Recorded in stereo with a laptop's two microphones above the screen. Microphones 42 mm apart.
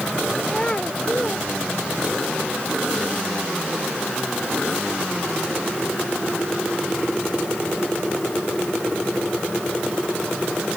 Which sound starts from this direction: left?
A child speaking, at 0.5 s.